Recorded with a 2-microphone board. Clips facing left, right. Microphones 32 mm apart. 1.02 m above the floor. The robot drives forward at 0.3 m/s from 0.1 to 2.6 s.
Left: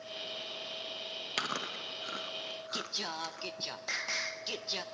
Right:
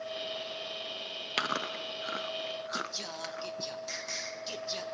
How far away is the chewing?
About 1.0 m.